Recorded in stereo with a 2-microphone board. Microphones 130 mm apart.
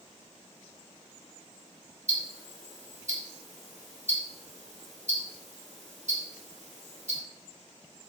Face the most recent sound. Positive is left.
turn(degrees=-70)  # may be behind; listen again after turning